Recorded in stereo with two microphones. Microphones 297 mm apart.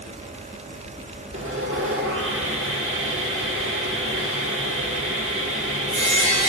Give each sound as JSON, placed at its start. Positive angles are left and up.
{"t": 1.3, "sound": "sawing", "side_deg": -45, "distance_m": 1.1}